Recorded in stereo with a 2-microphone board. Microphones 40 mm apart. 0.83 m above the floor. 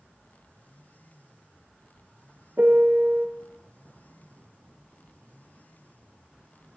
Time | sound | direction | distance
2.6 | a piano | 55° right (ahead or behind) | 0.6 m